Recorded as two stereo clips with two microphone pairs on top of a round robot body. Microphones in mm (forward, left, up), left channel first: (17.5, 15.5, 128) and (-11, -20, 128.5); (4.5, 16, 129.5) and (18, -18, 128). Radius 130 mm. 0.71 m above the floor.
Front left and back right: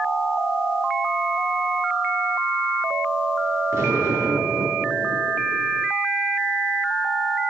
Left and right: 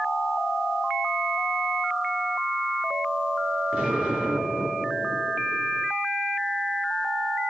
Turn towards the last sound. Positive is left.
turn(degrees=-130)